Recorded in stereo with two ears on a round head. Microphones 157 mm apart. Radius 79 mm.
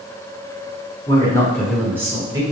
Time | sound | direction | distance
1.1 | a man speaking | 30° left (ahead or behind) | 0.9 m